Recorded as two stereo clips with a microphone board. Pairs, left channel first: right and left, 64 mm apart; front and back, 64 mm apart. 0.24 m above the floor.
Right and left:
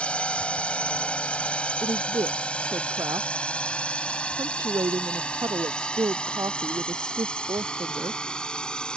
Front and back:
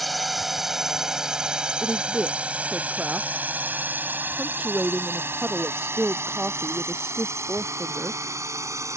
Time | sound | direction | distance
0.0 | a drone | 90° right | ?
1.8 | a woman speaking | 110° left | ?